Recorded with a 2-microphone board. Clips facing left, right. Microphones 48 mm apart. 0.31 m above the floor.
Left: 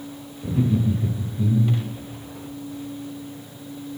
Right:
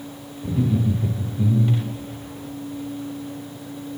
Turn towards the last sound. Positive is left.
turn(degrees=-40)  # may be behind; listen again after turning